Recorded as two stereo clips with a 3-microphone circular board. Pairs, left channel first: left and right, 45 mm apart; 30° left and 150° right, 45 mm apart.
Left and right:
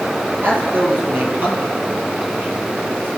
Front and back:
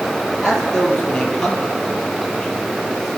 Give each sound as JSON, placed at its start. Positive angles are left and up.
{"t": 0.4, "sound": "a man speaking", "azimuth_deg": -50, "distance_m": 5.0}